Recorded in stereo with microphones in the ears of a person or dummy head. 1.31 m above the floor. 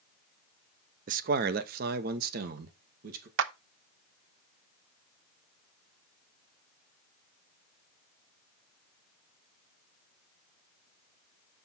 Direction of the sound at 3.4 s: 65° right (ahead or behind).